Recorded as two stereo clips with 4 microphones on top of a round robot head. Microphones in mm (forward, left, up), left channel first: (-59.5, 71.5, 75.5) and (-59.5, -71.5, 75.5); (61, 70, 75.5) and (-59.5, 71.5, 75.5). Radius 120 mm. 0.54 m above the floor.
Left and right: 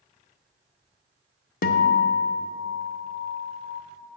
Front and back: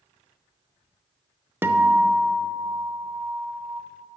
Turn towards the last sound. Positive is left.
turn(degrees=105)